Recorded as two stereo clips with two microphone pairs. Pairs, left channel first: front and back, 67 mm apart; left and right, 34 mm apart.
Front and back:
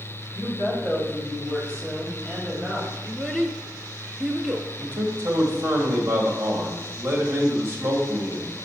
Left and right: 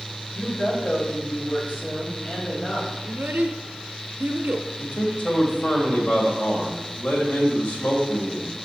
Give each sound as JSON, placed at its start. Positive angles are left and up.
{"t": 0.3, "sound": "a woman speaking", "azimuth_deg": 70, "distance_m": 3.5}
{"t": 3.0, "sound": "a child speaking", "azimuth_deg": -105, "distance_m": 0.6}
{"t": 4.8, "sound": "a man speaking", "azimuth_deg": 130, "distance_m": 1.6}